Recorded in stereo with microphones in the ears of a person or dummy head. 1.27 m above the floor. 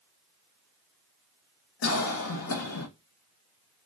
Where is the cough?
85° left, 0.7 m.